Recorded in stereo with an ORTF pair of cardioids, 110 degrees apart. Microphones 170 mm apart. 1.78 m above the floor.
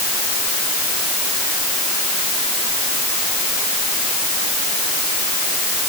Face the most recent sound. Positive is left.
No sound to turn to.